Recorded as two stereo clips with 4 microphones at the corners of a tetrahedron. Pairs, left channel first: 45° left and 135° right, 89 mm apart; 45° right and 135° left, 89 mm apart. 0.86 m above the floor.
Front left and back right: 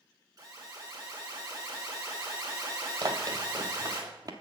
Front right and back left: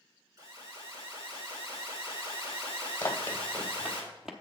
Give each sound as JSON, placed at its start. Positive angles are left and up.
{"t": 0.4, "sound": "an alarm", "azimuth_deg": 180, "distance_m": 3.5}
{"t": 3.0, "sound": "running footsteps", "azimuth_deg": -105, "distance_m": 1.4}